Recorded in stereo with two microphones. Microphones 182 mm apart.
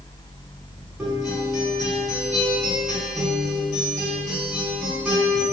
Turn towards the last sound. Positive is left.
turn(degrees=0)  # may be behind; listen again after turning